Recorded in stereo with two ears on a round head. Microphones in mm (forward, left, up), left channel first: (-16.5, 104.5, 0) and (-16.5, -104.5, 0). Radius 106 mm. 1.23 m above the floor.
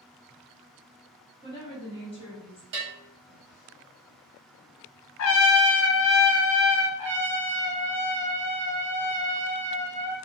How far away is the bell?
About 1.0 m.